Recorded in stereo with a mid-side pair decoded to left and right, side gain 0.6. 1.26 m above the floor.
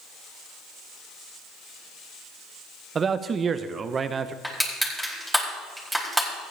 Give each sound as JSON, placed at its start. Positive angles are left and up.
{"t": 3.0, "sound": "a man speaking", "azimuth_deg": -30, "distance_m": 0.9}
{"t": 4.4, "sound": "crushing", "azimuth_deg": 5, "distance_m": 4.5}